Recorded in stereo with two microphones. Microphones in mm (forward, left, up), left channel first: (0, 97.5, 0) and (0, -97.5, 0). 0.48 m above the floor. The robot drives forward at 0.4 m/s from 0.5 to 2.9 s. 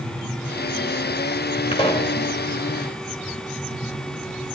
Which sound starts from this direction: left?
A pop, at 1.7 s.